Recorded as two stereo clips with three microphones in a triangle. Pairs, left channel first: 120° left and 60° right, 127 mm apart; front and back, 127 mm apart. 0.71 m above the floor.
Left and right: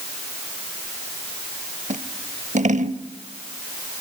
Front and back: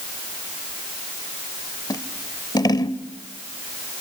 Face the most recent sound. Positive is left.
turn(degrees=-60)